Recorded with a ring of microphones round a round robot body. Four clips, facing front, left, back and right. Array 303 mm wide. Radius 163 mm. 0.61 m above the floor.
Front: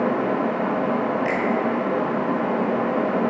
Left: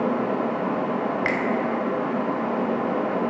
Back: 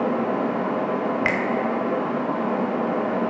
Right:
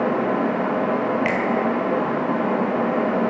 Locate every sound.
1.2 s a finger snap: 170° left, 1.3 m